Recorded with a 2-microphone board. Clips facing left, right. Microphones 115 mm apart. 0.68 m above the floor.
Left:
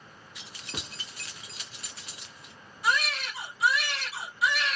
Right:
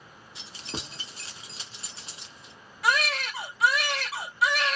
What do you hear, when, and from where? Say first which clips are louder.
0.3 s keys jangling: right 4 dB; 30° right (ahead or behind), 0.7 m
2.8 s a baby crying: right 2 dB; 80° right, 1.0 m